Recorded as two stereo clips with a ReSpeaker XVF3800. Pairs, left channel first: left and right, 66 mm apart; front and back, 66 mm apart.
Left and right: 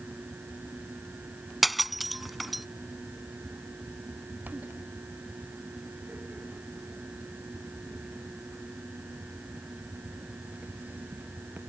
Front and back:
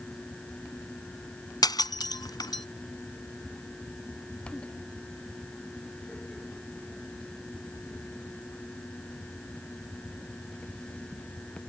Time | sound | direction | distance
1.6 | breaking glass | straight ahead | ?